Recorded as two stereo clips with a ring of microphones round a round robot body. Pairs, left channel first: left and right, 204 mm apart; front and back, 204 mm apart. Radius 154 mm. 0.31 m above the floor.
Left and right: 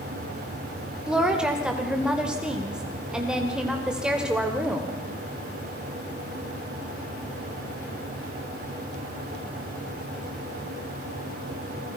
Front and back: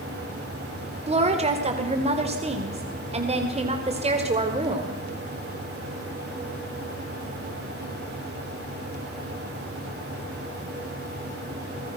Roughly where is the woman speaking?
Behind.